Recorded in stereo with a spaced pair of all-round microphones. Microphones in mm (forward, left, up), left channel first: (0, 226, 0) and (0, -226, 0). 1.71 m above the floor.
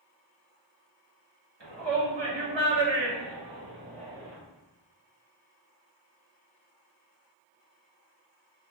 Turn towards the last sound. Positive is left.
turn(degrees=0)  # may be behind; listen again after turning